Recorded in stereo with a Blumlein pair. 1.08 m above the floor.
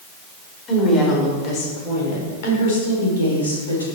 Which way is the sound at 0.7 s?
25° left.